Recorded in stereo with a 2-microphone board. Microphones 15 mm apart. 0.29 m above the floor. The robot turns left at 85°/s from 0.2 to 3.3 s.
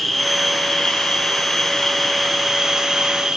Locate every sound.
0.0 s an insect: straight behind, 4 m; by 3.4 s 85° right, 4 m